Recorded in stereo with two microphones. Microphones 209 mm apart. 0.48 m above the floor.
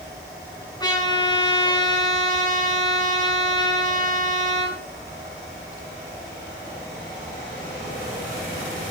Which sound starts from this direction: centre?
A trumpet, at 0.8 s.